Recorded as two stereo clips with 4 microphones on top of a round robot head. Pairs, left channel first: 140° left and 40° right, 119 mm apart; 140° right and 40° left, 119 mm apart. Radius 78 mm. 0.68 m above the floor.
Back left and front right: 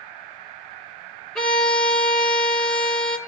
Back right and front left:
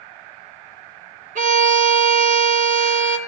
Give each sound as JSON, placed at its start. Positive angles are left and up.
{"t": 1.4, "sound": "a violin", "azimuth_deg": 55, "distance_m": 1.6}